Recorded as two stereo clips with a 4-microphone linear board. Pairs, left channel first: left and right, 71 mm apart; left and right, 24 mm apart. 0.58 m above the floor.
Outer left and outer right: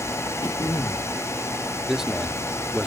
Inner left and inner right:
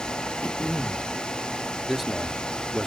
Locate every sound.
0.4 s throat clearing: 70° left (ahead or behind)
1.9 s a man speaking: 5° right (ahead or behind)